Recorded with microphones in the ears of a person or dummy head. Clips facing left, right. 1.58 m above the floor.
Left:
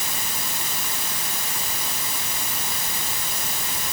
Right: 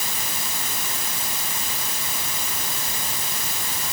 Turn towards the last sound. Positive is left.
No sound to turn to.